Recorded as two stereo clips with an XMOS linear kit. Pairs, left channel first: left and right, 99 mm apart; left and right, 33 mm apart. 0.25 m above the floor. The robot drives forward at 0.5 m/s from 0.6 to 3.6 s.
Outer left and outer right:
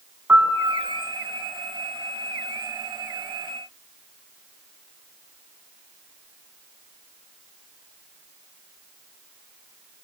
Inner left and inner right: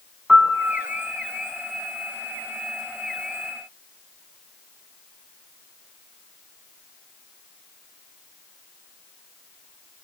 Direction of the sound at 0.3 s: 20° right (ahead or behind).